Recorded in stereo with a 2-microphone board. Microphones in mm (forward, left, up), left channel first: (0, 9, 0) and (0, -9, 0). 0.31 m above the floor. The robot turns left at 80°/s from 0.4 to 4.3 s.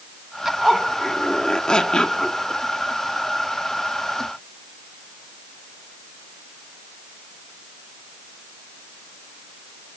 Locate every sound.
0.5 s a zipper: 145° right, 2 m; by 2.4 s 60° left, 2 m